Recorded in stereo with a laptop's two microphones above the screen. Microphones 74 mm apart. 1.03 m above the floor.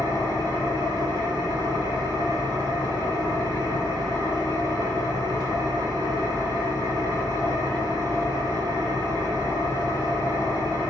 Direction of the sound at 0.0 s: 80° right.